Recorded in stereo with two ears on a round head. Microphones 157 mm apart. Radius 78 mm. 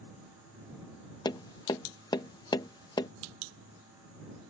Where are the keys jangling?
I don't hear keys jangling.